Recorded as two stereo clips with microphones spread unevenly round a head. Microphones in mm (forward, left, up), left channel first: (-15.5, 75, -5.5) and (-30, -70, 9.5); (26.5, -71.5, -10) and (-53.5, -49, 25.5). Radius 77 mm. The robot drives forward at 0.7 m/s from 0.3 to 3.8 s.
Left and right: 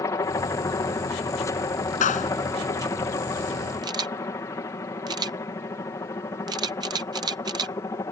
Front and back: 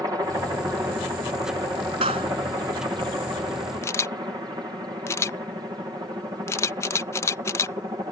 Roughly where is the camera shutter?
Ahead right.